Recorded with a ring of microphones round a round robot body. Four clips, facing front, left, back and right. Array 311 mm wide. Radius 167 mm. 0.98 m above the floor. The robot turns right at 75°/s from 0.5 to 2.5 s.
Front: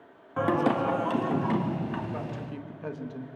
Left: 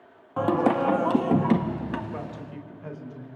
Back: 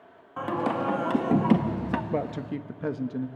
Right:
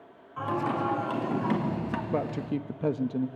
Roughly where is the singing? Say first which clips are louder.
Left 7 dB, front 3 dB; ahead left.